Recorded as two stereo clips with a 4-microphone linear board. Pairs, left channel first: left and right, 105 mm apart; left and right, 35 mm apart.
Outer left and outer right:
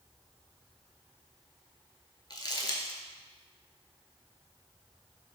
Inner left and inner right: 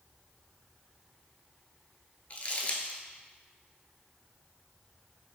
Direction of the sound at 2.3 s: 45° left (ahead or behind).